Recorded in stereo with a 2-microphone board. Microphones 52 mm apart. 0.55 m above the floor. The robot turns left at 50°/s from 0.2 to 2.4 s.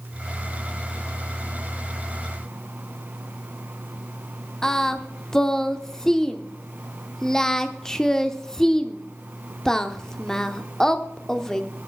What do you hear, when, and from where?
4.6 s singing: 10° left (ahead or behind), 0.8 m